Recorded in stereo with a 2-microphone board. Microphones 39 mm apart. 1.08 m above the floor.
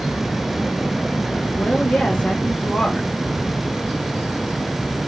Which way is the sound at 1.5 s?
35° left (ahead or behind).